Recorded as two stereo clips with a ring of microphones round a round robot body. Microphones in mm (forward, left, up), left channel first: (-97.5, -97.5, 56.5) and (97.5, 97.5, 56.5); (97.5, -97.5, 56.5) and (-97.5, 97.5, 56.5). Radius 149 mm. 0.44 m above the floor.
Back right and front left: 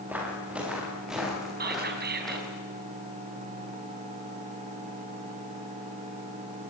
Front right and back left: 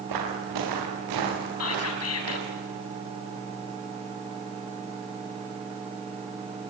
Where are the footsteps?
130° left, 9.5 m; by 2.6 s 135° left, 10.5 m.